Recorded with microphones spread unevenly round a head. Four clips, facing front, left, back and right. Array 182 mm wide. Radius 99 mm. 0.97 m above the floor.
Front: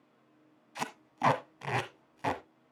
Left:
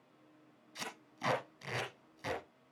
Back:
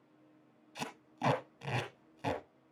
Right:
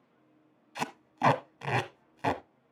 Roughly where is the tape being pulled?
Ahead right.